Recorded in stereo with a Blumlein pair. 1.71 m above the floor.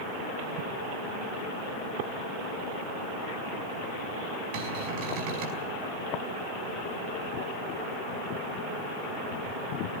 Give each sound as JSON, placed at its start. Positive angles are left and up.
{"t": 4.5, "sound": "a cupboard door", "azimuth_deg": -50, "distance_m": 4.5}